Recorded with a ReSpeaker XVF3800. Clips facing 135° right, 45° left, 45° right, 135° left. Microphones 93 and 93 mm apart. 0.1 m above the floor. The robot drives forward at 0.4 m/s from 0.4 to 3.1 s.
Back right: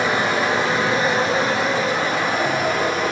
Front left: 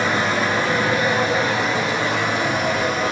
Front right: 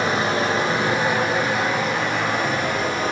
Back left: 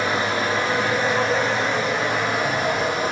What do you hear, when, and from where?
0.0 s running water: 75° right, 0.9 m; by 3.1 s 150° right, 1.3 m